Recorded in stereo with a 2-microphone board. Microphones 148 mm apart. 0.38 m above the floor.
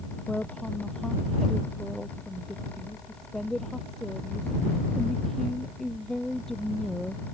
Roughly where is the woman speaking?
Centre.